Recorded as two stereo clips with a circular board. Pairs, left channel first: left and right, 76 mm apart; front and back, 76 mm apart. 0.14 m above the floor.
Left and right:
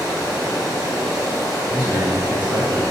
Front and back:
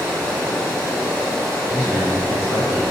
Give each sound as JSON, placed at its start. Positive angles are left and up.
{"t": 0.0, "sound": "running water", "azimuth_deg": 70, "distance_m": 1.9}
{"t": 1.7, "sound": "a man speaking", "azimuth_deg": -140, "distance_m": 1.1}